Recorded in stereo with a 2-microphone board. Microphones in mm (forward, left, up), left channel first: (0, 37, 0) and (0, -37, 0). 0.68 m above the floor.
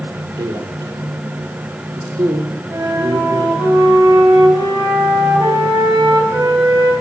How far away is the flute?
About 3 m.